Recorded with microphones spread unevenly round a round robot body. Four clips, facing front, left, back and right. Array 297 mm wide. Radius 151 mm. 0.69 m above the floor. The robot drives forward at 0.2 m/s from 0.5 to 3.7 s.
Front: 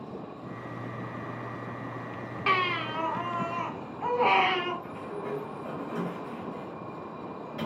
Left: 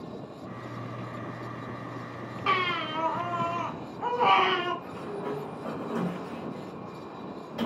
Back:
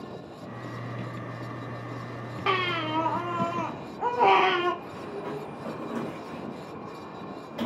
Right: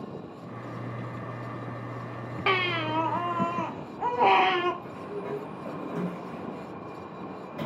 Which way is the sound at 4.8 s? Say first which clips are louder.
Left 1 dB, even; 130° left.